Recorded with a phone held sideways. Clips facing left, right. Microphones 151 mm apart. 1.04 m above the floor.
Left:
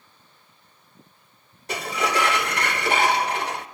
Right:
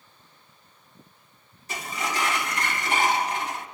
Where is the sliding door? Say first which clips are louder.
Left 6 dB; 65° left (ahead or behind), 1.3 m.